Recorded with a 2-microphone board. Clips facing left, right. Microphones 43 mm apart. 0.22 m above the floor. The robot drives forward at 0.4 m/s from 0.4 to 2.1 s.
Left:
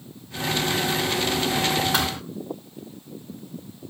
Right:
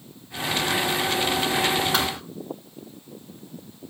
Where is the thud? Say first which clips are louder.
Even; centre (ahead or behind), 1.4 m.